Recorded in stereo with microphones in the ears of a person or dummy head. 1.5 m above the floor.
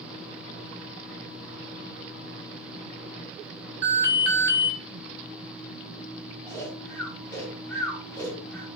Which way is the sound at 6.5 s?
15° left (ahead or behind).